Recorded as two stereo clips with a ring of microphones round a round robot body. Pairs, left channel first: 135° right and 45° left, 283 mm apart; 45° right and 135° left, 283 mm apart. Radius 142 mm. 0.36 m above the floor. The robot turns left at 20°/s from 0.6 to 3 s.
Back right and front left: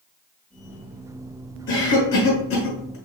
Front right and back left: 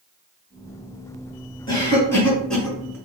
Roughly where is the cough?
Behind right.